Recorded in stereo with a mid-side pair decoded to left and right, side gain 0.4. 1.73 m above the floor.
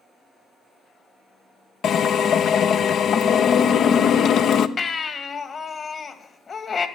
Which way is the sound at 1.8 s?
70° left.